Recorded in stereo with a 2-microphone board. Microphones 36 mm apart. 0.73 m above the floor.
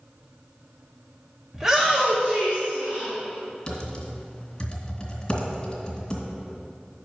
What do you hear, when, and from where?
1.5 s a shout: 10° right (ahead or behind), 1.2 m; by 3.1 s 40° right (ahead or behind), 2.5 m
3.7 s typing on a keyboard: 20° left (ahead or behind), 2 m